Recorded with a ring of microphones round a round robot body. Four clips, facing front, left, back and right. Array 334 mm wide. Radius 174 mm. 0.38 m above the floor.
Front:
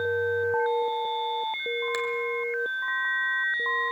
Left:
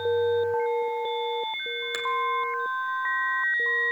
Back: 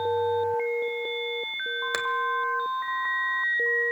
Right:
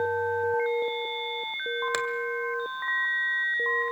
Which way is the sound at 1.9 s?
140° right.